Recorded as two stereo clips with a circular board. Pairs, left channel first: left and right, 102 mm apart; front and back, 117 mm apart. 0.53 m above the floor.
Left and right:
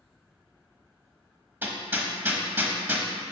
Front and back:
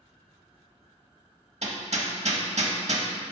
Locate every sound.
1.6 s hammering: 160° right, 0.8 m